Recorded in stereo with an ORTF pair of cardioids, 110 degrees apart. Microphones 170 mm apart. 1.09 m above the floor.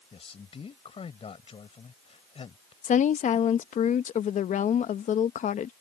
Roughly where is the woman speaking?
Ahead left.